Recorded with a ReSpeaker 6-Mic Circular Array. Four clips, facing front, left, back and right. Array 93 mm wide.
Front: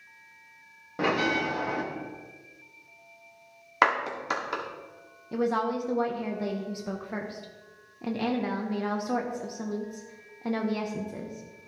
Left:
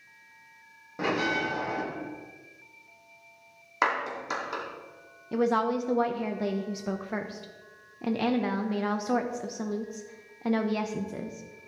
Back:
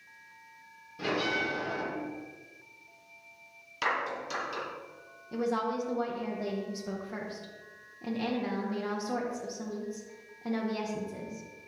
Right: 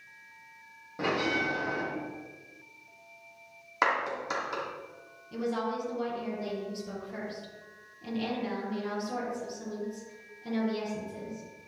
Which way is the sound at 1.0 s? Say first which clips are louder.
Left 1 dB, front 5 dB; 5° left.